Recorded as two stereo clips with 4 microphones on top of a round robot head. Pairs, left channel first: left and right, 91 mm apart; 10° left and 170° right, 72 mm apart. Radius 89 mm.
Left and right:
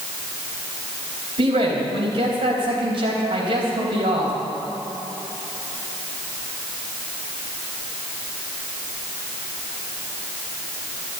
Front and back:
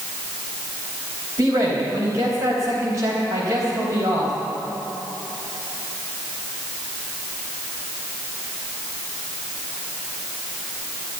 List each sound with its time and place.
1.4 s a man speaking: 120° right, 4 m